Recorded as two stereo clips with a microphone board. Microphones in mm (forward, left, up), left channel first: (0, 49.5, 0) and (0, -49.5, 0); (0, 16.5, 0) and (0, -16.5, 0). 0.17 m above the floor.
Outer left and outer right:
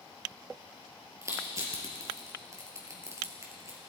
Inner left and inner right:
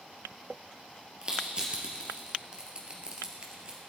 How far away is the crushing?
About 3 m.